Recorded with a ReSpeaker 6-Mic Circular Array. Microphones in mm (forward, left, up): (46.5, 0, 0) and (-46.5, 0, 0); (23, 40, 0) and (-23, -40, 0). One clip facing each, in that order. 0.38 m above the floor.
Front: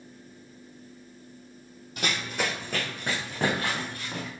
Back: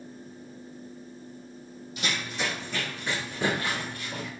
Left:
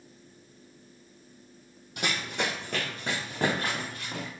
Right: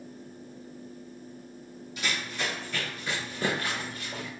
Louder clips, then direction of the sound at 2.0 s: Front 2 dB, left 2 dB; 35° left.